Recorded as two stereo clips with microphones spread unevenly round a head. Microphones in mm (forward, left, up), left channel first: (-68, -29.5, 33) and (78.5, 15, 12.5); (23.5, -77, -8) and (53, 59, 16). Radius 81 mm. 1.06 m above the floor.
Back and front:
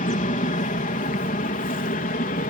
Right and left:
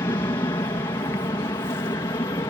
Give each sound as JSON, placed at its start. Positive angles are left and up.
{"t": 0.0, "sound": "an aircraft", "azimuth_deg": -160}